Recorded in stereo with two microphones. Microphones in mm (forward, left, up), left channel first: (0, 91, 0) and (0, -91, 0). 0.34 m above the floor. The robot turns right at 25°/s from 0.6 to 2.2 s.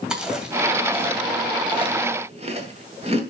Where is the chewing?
5° right (ahead or behind), 2 m; by 3.2 s 35° right (ahead or behind), 2 m.